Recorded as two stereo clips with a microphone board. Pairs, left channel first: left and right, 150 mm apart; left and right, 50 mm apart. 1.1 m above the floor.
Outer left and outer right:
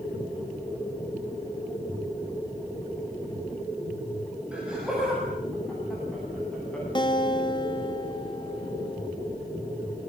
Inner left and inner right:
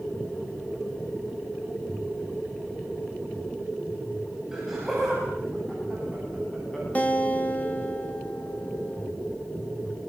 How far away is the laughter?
About 8.5 m.